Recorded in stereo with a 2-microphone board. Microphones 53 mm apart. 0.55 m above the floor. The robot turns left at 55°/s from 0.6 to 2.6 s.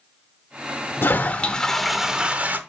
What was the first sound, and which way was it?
A toilet flushing, 45° left.